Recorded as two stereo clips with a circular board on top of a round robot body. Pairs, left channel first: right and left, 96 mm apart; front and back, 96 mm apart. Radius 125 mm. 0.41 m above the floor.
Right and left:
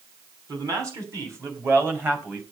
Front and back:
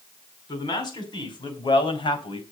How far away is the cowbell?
I don't hear a cowbell.